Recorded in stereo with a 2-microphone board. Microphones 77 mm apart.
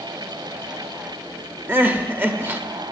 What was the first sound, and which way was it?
Crying, 25° right (ahead or behind).